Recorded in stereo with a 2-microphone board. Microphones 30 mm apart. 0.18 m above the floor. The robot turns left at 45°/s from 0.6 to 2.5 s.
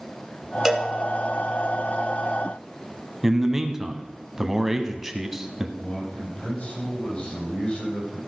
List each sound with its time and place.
0.7 s a cowbell: 15° right (ahead or behind), 1.0 m; by 0.9 s 5° right (ahead or behind), 1.0 m
3.2 s a man speaking: 10° right (ahead or behind), 1.1 m
5.8 s a man speaking: 40° left (ahead or behind), 6 m